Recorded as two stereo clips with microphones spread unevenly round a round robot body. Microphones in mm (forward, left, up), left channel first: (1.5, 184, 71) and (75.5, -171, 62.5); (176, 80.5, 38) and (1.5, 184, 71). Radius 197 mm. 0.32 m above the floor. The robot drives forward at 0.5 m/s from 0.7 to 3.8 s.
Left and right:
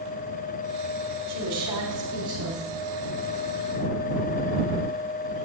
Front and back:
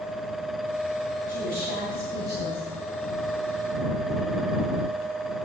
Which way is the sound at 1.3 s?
155° right.